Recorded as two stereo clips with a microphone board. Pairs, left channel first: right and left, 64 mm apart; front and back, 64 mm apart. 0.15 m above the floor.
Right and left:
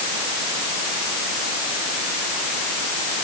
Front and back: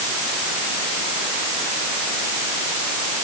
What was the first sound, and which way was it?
Only background noise.